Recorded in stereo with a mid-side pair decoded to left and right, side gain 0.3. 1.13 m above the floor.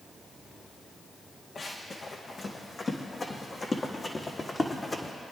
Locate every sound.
1.6 s running footsteps: 60° left, 3.5 m; by 5.1 s 30° left, 3 m